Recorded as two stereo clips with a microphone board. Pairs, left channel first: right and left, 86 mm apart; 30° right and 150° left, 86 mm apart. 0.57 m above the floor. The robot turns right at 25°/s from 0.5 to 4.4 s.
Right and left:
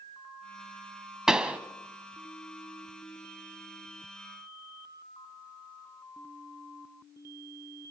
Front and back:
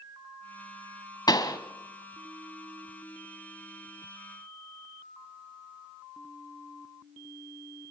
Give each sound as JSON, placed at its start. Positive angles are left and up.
{"t": 1.3, "sound": "a pop", "azimuth_deg": 5, "distance_m": 1.3}